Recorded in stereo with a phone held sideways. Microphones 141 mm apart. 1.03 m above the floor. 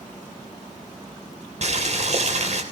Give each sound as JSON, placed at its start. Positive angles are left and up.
{"t": 1.6, "sound": "boiling", "side_deg": -55, "distance_m": 3.5}